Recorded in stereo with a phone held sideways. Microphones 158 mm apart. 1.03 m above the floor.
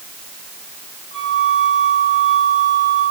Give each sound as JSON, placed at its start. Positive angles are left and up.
{"t": 1.1, "sound": "a flute", "side_deg": 45, "distance_m": 6.5}